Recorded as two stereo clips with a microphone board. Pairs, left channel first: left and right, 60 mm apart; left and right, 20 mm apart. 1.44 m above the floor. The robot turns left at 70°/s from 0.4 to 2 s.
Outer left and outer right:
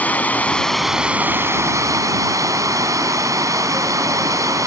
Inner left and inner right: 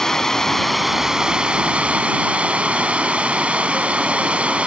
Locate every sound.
0.0 s running water: 30° left; by 4.7 s 85° right